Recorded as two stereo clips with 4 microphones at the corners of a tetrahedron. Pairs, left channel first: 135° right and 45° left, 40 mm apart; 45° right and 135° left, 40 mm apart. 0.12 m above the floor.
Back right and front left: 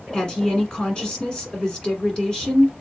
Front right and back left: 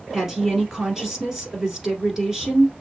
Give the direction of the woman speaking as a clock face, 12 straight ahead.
5 o'clock.